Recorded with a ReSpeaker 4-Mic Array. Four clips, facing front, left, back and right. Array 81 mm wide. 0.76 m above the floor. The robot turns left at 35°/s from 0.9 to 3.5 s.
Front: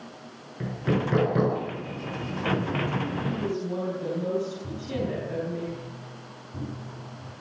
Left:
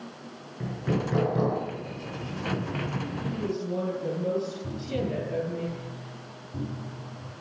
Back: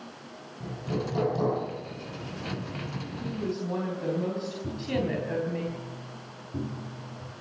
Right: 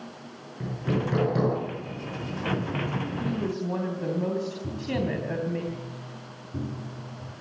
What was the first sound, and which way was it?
Hammering, straight ahead.